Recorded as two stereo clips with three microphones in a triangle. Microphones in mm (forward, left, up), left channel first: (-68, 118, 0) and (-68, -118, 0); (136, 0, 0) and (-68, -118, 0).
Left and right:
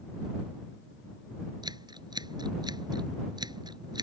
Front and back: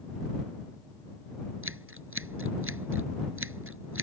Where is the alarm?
No alarm in this recording.